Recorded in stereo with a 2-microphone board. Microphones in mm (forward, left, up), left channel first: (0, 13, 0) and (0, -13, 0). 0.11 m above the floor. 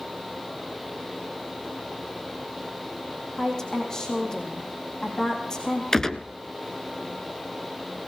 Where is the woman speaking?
20° left (ahead or behind), 4 m.